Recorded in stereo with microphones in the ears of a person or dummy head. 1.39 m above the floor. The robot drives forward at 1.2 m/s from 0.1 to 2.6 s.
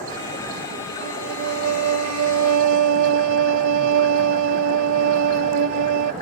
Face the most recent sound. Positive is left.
turn(degrees=-70)  # may be behind; listen again after turning